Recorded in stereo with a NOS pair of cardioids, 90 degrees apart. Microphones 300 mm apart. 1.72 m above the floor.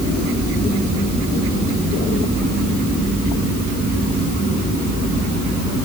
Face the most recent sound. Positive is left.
No sound to turn to.